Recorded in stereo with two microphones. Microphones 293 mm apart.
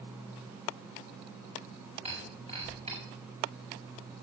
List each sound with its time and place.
2.0 s breaking glass: 20° right (ahead or behind), 6.5 m